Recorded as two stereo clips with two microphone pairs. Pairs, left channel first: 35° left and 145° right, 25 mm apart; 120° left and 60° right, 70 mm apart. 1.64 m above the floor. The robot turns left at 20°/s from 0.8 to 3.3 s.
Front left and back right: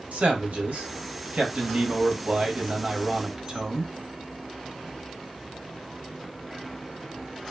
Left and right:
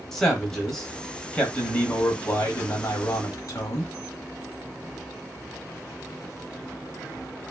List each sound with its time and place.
0.1 s a man speaking: 155° right, 1.0 m; by 3.9 s 155° left, 1.0 m